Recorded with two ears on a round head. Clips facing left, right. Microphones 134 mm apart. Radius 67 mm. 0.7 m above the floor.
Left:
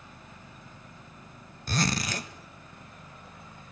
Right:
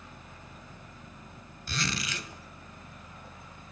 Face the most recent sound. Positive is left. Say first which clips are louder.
# left 6 dB
turn(degrees=35)  # may be behind; listen again after turning